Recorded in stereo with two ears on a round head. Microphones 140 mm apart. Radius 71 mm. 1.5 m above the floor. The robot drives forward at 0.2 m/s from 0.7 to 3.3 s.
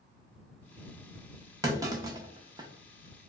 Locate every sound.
1.6 s a clunk: 20° right (ahead or behind), 0.5 m; by 2.7 s 25° right (ahead or behind), 0.5 m